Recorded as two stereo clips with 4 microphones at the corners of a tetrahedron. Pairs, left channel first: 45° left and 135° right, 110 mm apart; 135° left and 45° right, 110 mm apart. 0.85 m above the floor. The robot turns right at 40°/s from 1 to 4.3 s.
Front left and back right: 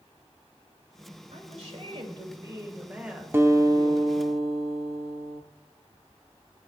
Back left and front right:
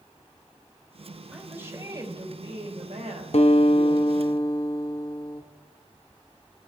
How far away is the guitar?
About 1.1 m.